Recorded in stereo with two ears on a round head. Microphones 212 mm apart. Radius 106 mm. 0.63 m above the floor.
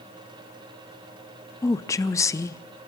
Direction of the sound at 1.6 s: 10° left (ahead or behind).